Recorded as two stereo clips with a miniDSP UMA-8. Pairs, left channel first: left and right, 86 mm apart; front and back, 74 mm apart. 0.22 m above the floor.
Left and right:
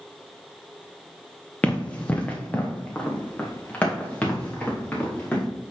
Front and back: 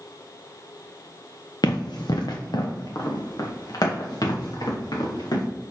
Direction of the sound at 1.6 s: 20° left.